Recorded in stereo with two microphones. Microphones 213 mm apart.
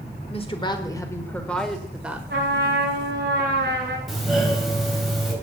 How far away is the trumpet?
About 2.5 m.